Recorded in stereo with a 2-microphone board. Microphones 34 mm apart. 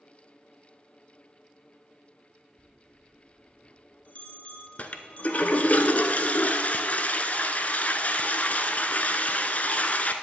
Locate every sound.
2.6 s a bell: 40° left (ahead or behind), 1.3 m
4.8 s a toilet flushing: 45° left (ahead or behind), 0.7 m